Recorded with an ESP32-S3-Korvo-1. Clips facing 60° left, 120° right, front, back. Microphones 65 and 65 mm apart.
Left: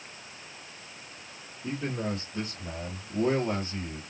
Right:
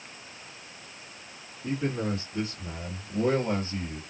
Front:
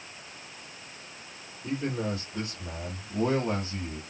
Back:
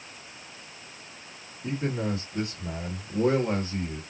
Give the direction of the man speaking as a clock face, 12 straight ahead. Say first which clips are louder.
Right 3 dB, back 1 dB; 7 o'clock.